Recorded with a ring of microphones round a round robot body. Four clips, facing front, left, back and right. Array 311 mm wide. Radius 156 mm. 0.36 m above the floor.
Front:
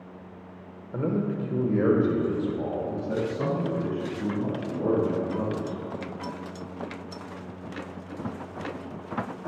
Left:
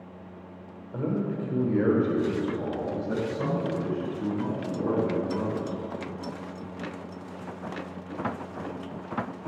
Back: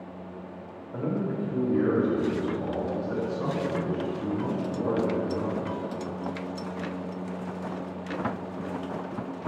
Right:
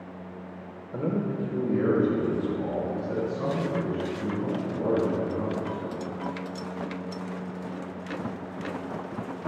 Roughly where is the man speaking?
Ahead right.